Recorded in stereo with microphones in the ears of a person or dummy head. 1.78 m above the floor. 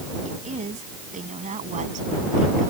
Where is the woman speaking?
30° right (ahead or behind).